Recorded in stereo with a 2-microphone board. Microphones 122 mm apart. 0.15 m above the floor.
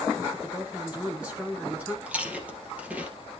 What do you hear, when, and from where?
0.3 s a woman speaking: 10° right (ahead or behind), 1.5 m
2.1 s chewing: 10° right (ahead or behind), 2.5 m